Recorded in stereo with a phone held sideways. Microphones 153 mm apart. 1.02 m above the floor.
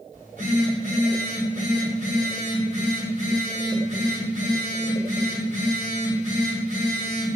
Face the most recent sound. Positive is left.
turn(degrees=-55)  # may be behind; listen again after turning